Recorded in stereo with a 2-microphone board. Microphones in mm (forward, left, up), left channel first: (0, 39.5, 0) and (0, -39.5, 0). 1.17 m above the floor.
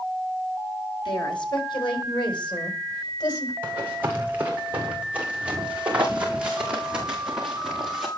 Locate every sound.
1.1 s a woman speaking: 80° left, 8.5 m; by 3.5 s 55° left (ahead or behind), 5.5 m
3.6 s running footsteps: 25° right (ahead or behind), 8.5 m; by 8.1 s 5° right (ahead or behind), 7 m